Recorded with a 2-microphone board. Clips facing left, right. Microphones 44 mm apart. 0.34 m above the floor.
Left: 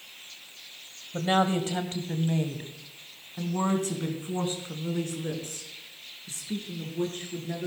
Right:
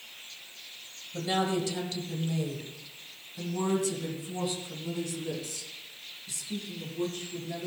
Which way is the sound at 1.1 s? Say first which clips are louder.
Left 4 dB; 40° left (ahead or behind).